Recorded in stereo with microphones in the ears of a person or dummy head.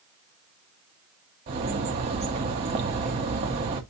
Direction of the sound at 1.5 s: 25° right (ahead or behind).